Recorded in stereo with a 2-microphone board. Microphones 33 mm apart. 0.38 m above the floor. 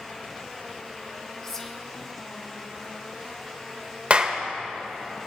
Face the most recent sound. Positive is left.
turn(degrees=-40)  # may be behind; listen again after turning